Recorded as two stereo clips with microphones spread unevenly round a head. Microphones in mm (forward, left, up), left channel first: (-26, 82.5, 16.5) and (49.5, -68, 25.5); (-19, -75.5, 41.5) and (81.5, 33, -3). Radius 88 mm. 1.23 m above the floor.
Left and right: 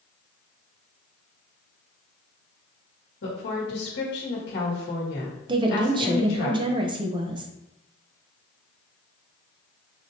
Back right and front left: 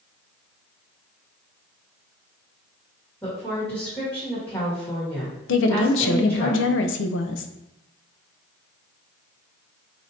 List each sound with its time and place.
3.2 s a woman speaking: 140° left, 1.5 m
5.5 s a woman speaking: 130° right, 0.5 m